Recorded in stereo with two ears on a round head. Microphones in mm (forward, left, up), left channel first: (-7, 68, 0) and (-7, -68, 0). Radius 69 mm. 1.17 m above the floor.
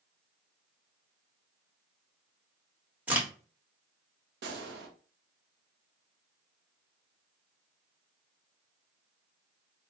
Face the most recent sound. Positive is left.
turn(degrees=-75)  # may be behind; listen again after turning